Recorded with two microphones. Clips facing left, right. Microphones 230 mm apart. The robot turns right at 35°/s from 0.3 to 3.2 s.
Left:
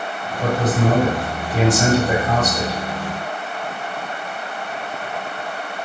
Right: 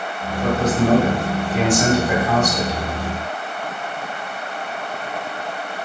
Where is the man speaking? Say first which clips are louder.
Right 1 dB; 80° left, 1.8 m; by 2.8 s 160° left, 1.8 m.